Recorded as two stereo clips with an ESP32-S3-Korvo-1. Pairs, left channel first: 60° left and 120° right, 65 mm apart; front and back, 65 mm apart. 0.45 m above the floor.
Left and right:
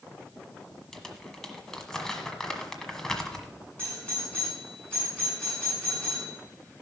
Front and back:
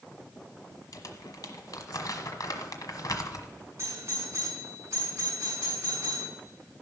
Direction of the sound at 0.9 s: 20° right.